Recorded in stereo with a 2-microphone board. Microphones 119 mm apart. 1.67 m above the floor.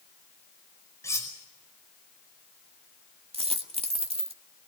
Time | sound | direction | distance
1.0 | cutlery clinking | 25° left (ahead or behind) | 5 m
3.3 | a dropped coin | 55° right (ahead or behind) | 1.7 m